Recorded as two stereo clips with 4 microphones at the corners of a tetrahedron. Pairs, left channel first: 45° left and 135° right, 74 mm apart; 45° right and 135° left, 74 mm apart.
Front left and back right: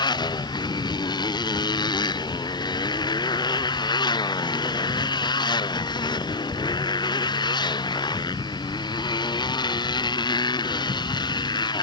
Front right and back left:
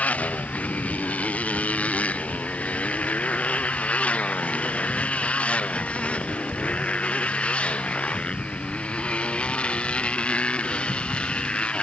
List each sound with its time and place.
0.0 s a motorcycle: 25° left; by 11.8 s 30° left